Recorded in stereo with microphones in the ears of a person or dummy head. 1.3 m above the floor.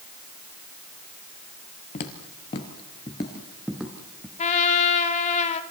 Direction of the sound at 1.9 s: 35° left (ahead or behind).